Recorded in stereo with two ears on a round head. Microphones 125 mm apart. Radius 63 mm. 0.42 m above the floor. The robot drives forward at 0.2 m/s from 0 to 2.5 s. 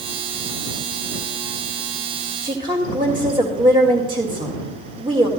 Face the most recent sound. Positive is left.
turn(degrees=-35)  # may be behind; listen again after turning